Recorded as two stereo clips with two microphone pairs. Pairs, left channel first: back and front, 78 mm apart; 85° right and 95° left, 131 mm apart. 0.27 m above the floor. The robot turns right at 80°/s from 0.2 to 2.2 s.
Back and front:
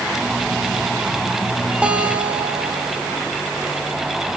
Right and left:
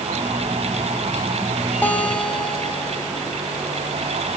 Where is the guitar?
45° right, 1.0 m; by 3.2 s 15° right, 1.0 m.